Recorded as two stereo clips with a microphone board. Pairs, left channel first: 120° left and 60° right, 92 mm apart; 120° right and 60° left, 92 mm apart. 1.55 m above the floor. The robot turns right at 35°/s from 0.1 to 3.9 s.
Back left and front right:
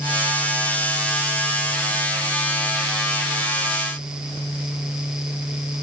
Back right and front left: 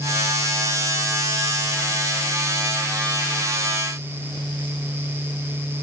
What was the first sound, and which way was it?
Only background noise.